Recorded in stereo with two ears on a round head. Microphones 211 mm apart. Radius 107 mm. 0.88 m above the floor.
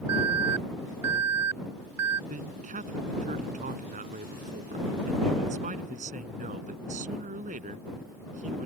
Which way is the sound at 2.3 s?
30° right (ahead or behind).